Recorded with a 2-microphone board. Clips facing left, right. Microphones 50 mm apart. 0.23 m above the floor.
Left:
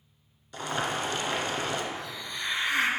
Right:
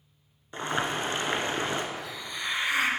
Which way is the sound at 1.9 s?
10° right (ahead or behind).